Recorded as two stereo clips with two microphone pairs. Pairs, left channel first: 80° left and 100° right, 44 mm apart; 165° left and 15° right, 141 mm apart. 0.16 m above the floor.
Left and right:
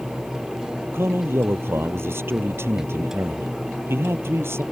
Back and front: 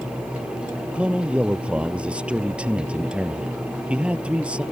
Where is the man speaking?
95° right.